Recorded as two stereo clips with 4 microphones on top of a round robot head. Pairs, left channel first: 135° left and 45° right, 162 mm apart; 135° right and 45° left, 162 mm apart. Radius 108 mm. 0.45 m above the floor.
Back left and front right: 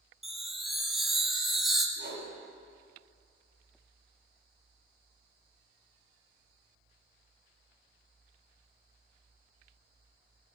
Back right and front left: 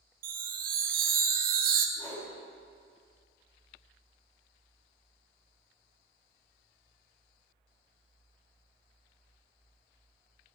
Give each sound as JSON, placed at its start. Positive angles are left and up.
{"t": 0.2, "sound": "a chime", "azimuth_deg": 40, "distance_m": 0.5}
{"t": 2.0, "sound": "a whoosh", "azimuth_deg": -70, "distance_m": 1.8}